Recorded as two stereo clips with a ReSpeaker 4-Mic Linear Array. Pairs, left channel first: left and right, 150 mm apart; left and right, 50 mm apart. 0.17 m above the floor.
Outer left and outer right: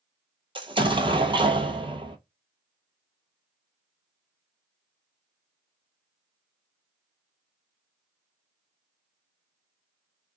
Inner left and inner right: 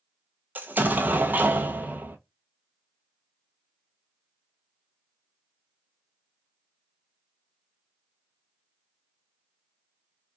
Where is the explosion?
35° right (ahead or behind), 0.7 m.